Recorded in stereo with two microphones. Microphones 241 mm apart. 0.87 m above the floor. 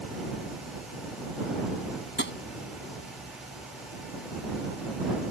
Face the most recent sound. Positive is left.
turn(degrees=50)  # may be behind; listen again after turning